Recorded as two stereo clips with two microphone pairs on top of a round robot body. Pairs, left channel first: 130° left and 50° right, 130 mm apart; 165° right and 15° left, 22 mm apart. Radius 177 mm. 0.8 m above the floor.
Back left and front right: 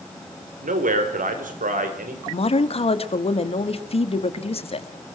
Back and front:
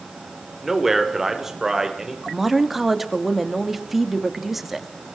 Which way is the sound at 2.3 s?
90° left.